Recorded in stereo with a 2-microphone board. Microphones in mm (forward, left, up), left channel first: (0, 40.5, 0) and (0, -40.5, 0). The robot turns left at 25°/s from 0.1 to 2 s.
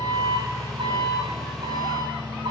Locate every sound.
0.0 s an engine running: 55° right, 7 m; by 2.5 s 105° right, 7 m